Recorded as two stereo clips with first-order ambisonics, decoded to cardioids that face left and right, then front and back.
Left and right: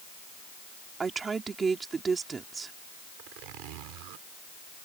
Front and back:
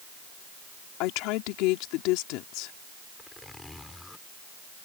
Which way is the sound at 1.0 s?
20° right.